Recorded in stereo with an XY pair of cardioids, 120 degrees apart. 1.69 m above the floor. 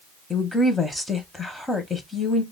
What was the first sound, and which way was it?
A woman speaking, 15° left.